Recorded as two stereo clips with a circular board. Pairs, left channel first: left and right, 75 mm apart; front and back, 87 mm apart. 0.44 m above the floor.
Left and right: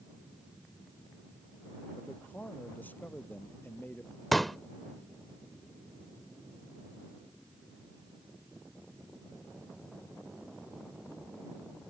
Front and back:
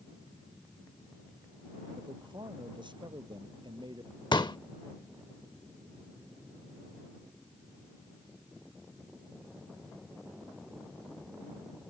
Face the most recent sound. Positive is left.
turn(degrees=0)